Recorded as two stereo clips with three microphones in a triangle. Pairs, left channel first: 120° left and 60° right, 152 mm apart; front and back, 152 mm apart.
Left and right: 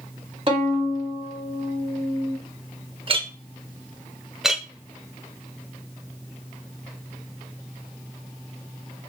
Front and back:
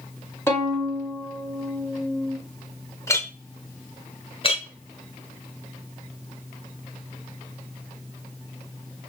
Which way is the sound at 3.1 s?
60° right.